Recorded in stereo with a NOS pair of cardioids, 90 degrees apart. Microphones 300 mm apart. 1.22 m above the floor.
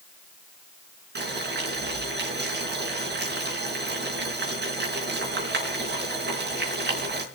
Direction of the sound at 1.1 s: 35° right.